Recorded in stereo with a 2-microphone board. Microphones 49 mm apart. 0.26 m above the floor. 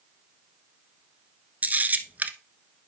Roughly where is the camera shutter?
Right.